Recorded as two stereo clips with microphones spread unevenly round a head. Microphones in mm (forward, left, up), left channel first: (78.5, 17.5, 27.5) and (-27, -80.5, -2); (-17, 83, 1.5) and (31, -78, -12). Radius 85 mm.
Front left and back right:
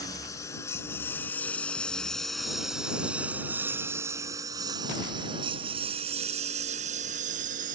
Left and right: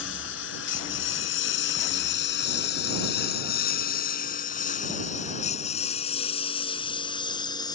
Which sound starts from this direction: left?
A lawn mower, at 0.0 s.